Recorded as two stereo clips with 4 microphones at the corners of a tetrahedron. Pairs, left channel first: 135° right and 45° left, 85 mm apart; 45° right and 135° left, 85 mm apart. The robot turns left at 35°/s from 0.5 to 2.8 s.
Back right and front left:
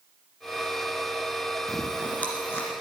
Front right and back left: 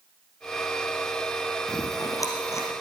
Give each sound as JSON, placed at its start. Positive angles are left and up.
{"t": 1.7, "sound": "chewing", "azimuth_deg": -50, "distance_m": 2.0}